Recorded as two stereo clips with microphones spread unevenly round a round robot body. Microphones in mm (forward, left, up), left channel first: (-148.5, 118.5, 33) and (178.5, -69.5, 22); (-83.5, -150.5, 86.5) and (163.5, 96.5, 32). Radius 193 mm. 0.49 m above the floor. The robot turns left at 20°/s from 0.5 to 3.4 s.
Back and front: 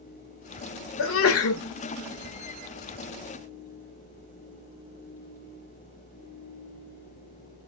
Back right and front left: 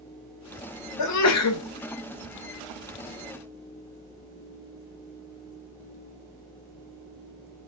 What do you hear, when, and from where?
1.0 s a sneeze: 165° right, 1.0 m; by 1.6 s 175° right, 1.0 m